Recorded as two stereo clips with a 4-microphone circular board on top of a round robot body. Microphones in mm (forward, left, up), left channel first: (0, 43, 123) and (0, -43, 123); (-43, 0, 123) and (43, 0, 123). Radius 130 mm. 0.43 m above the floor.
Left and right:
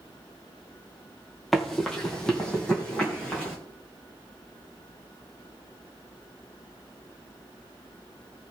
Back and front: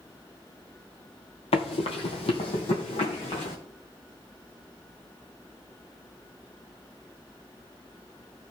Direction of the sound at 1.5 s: Straight behind.